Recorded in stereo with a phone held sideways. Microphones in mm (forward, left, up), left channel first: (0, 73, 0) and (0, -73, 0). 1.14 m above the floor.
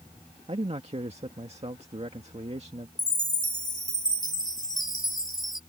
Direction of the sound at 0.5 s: 45° right (ahead or behind).